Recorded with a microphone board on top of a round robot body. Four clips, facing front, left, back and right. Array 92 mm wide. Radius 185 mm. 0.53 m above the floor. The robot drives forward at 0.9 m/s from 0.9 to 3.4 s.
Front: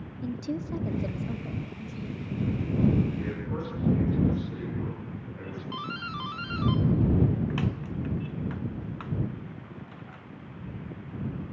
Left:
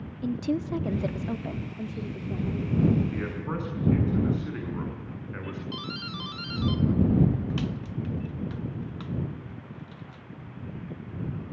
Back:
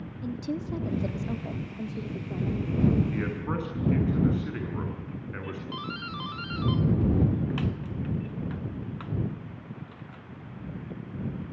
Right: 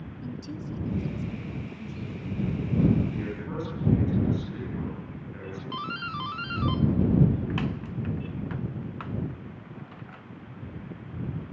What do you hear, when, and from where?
0.2 s a woman speaking: 85° left, 1.2 m; by 3.0 s 150° left, 2 m
3.1 s a man speaking: 145° left, 7.5 m
5.7 s a doorbell: 75° right, 1.4 m